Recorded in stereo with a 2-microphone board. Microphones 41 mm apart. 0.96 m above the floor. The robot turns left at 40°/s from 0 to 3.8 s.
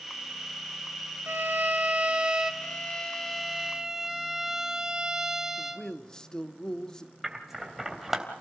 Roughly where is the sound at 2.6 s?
Ahead left.